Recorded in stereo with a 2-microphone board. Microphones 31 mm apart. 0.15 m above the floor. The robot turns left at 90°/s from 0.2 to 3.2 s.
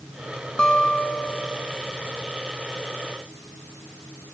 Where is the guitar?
95° left, 1.5 m; by 1.7 s straight ahead, 1.5 m.